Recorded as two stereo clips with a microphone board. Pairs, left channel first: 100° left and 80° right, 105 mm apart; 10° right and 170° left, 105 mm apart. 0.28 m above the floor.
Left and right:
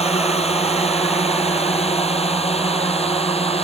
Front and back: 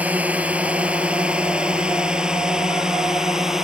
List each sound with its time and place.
0.0 s a drone: 95° left; by 3.6 s 85° left